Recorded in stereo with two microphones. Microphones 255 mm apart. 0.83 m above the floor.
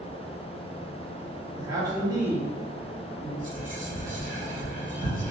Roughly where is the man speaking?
Centre.